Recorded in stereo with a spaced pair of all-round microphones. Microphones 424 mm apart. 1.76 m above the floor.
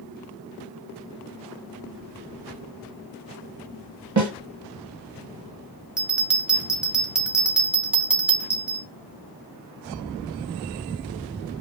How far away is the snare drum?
About 0.7 m.